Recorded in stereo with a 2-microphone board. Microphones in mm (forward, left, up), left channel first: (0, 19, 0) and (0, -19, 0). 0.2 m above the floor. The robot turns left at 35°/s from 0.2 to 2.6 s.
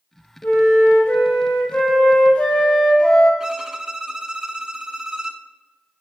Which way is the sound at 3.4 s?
15° right (ahead or behind).